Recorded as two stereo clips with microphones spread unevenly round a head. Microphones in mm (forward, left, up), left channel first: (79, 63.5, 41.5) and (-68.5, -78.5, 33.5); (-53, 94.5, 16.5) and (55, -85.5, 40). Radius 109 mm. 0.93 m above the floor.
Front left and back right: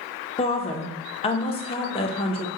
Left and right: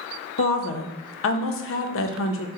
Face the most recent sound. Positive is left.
turn(degrees=110)